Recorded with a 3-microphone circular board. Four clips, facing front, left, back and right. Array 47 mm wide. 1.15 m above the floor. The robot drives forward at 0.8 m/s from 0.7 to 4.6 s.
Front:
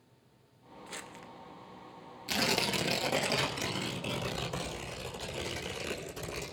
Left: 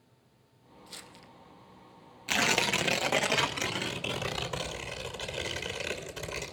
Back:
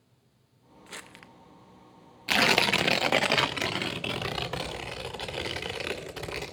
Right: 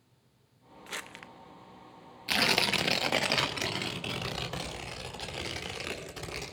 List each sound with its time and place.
0.9 s crumpling: 90° right, 0.8 m; by 1.3 s 115° right, 0.9 m
2.3 s tearing paper: 170° left, 0.6 m; by 6.5 s straight behind, 2.5 m